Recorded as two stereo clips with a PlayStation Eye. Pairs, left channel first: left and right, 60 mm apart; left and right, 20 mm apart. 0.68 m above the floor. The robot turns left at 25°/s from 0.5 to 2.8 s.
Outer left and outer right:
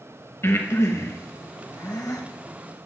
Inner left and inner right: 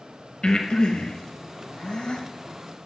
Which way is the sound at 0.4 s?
45° left (ahead or behind).